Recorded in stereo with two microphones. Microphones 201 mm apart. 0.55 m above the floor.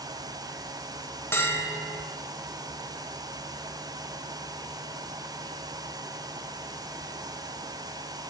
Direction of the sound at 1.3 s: 10° left (ahead or behind).